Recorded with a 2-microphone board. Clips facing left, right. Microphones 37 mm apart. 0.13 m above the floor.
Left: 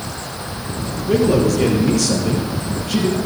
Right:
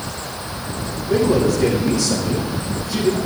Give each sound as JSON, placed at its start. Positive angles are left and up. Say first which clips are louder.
{"t": 1.1, "sound": "a man speaking", "louder": "left 1 dB", "side_deg": 60, "distance_m": 4.0}